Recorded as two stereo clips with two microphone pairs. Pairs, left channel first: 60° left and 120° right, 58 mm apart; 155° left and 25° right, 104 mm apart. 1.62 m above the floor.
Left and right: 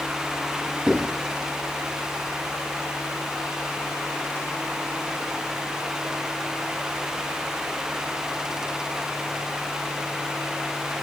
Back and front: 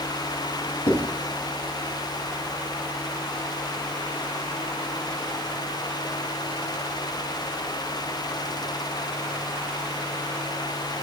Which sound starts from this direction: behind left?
Writing, at 0.9 s.